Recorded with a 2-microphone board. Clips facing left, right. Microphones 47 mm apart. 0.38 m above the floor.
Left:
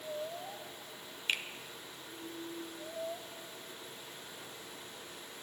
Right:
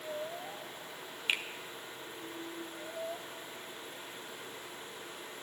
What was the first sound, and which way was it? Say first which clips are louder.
A finger snap: right 2 dB; 10° right (ahead or behind).